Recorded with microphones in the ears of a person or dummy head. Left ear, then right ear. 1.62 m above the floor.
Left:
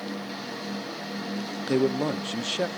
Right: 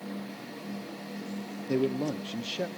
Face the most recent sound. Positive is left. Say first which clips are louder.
# left 4 dB
turn(degrees=40)  # may be behind; listen again after turning